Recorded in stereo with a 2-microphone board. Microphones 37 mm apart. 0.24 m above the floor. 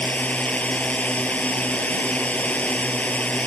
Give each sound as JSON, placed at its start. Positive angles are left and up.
{"t": 0.0, "sound": "a drone", "side_deg": 40}